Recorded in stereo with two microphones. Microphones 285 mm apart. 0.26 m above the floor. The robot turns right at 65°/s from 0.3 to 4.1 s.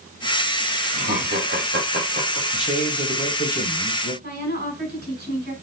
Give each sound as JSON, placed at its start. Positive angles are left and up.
{"t": 0.9, "sound": "laughter", "side_deg": -30, "distance_m": 1.2}
{"t": 2.5, "sound": "a man speaking", "azimuth_deg": -5, "distance_m": 1.1}
{"t": 4.2, "sound": "a woman speaking", "side_deg": -35, "distance_m": 1.8}